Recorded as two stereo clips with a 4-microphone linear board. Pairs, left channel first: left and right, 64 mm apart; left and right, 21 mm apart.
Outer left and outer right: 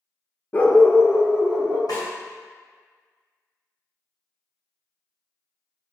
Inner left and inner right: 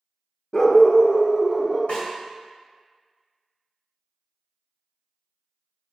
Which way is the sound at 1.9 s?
80° left.